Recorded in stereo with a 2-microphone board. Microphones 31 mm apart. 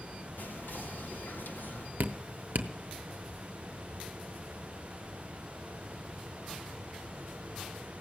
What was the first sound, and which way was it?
Whispering, 80° left.